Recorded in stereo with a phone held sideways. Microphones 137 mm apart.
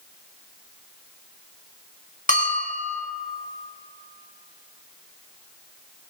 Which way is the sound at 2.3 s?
70° left (ahead or behind).